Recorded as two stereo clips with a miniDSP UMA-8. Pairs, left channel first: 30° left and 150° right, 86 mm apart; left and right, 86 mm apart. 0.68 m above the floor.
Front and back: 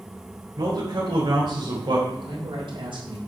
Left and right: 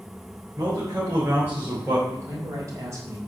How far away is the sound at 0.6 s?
About 3.5 m.